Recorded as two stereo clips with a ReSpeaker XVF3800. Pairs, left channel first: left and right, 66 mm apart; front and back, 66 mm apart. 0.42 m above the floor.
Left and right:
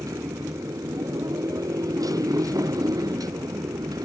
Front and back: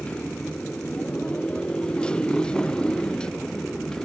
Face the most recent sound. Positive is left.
turn(degrees=-80)